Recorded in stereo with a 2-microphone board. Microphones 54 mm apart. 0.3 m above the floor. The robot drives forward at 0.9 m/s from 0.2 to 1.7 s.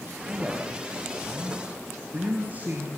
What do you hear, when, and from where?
0.2 s a man speaking: 25° right (ahead or behind), 6.5 m; by 2.9 s 35° right (ahead or behind), 5.5 m